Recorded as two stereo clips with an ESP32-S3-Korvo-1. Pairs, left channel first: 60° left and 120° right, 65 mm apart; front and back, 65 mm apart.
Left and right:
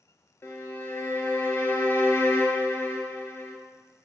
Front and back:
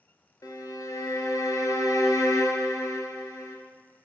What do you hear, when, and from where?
0.4 s a violin: 10° left, 0.9 m